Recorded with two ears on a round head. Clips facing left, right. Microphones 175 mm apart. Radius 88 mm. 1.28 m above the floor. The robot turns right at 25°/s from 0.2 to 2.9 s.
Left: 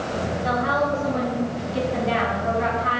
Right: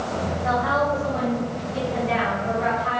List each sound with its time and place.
0.4 s a woman speaking: 45° left, 4 m; by 3.0 s 105° left, 4 m